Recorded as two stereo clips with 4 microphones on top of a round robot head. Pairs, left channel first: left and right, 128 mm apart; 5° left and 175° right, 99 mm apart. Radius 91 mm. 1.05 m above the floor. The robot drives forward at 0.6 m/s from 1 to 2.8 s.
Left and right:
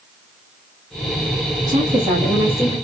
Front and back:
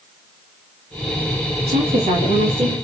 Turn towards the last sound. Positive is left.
turn(degrees=-165)